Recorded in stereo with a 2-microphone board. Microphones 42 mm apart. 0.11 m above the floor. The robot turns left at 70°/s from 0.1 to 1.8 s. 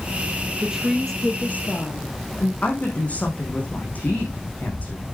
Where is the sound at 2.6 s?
35° left (ahead or behind), 5.5 m.